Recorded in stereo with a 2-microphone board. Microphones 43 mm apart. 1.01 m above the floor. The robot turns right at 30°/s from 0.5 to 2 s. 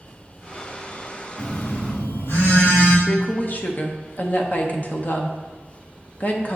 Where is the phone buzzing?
70° left (ahead or behind), 2.5 m.